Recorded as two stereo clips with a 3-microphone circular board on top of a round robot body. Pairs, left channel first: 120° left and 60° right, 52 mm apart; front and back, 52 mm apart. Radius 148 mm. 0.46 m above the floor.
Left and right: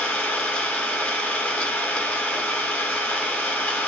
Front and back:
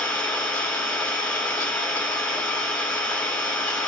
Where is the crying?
No crying in this recording.